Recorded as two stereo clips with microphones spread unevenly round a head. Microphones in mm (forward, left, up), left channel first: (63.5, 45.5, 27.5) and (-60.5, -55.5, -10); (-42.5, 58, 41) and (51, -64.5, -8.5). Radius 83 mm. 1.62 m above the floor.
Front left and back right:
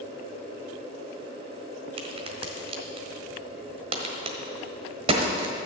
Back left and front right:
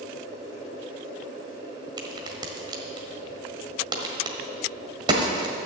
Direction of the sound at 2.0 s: 125° right.